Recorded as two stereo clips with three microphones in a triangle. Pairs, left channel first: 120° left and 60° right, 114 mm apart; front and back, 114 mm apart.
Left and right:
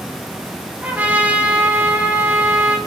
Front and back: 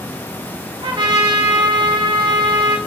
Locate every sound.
0.8 s a trumpet: 135° right, 2 m